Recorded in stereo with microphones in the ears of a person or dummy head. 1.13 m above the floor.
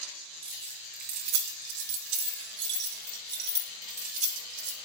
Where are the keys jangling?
30° right (ahead or behind), 1.3 m; by 4.8 s 50° right (ahead or behind), 3 m.